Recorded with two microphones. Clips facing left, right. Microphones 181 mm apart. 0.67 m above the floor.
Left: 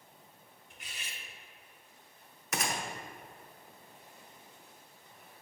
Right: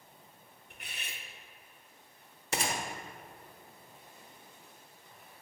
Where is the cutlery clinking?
60° right (ahead or behind), 0.8 m.